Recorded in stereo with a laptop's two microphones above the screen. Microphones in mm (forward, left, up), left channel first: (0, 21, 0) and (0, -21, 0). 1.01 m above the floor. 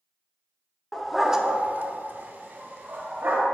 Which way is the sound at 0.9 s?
10° left (ahead or behind).